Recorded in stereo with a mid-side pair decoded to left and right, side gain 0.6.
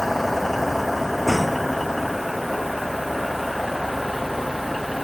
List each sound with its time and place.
0.0 s a vehicle: 5° left; by 5.0 s straight ahead